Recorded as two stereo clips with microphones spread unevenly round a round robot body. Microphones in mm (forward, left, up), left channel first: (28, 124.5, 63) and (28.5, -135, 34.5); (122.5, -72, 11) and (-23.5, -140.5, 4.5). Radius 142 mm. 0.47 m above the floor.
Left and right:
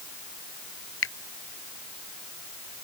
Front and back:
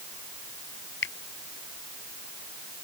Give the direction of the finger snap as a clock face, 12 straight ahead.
10 o'clock.